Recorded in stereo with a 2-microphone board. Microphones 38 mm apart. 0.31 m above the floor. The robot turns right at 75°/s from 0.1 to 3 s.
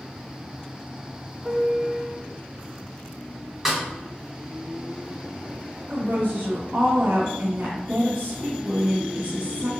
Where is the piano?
10° right (ahead or behind), 0.6 m; by 2.2 s 20° right (ahead or behind), 0.6 m.